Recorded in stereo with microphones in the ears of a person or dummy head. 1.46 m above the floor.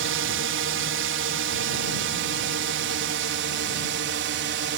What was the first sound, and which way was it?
A drone, 65° right (ahead or behind).